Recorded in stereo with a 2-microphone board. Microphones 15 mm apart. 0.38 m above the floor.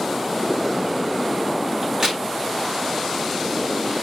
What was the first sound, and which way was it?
A crack, 45° right (ahead or behind).